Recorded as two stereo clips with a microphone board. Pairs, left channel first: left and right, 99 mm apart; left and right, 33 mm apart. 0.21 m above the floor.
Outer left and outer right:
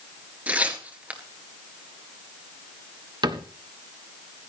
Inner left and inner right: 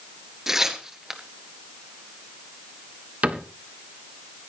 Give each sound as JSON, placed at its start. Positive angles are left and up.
{"t": 0.5, "sound": "tearing paper", "side_deg": -15, "distance_m": 1.8}
{"t": 3.2, "sound": "a cupboard door", "side_deg": -45, "distance_m": 1.3}